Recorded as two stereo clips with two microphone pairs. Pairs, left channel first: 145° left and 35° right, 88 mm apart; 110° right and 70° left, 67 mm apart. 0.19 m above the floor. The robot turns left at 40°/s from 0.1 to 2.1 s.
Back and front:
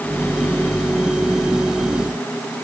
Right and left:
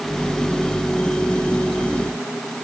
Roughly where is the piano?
No piano in this recording.